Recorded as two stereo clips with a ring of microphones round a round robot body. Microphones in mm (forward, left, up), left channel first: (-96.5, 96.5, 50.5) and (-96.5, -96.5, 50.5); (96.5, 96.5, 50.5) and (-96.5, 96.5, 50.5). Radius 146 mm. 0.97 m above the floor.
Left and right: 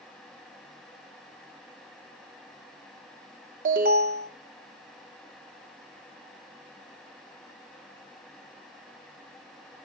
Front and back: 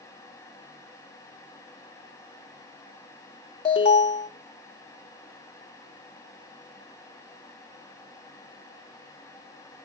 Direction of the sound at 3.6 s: 60° right.